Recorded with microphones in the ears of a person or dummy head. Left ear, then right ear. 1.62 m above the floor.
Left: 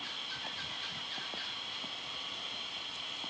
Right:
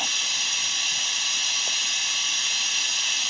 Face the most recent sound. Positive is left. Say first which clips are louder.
# right 15 dB
turn(degrees=-70)  # may be behind; listen again after turning